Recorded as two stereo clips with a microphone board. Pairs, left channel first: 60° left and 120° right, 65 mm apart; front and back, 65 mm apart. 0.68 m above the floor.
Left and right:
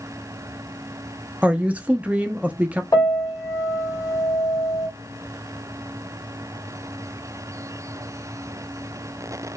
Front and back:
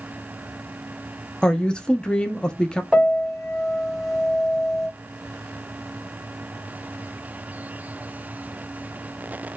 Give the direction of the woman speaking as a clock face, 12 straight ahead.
2 o'clock.